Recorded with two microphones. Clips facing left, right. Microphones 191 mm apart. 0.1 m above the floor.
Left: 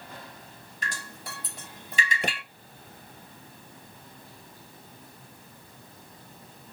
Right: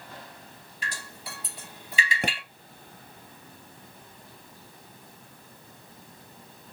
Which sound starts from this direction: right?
A pop, at 2.2 s.